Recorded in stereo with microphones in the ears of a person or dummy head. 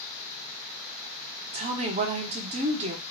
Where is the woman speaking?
35° right (ahead or behind), 0.6 m.